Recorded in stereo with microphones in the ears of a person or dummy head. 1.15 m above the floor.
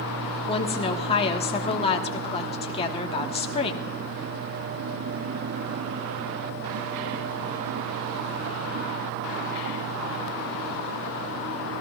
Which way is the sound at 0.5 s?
35° left (ahead or behind).